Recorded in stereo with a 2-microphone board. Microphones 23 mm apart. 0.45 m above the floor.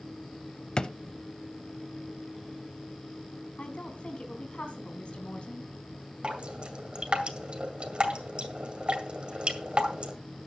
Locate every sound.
0.8 s a drawer: 40° left (ahead or behind), 0.6 m
3.6 s a woman speaking: 55° left (ahead or behind), 3 m
6.2 s dripping: 50° right (ahead or behind), 2 m